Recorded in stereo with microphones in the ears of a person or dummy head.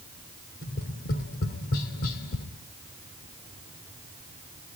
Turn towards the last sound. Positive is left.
turn(degrees=50)  # may be behind; listen again after turning